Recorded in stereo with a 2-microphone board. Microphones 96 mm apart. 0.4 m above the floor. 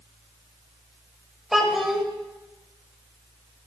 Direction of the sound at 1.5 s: 5° right (ahead or behind).